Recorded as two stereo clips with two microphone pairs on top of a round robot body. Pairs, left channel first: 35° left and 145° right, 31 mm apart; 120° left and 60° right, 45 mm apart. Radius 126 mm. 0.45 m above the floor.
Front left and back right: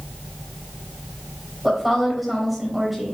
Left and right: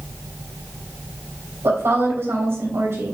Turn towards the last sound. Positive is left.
turn(degrees=-55)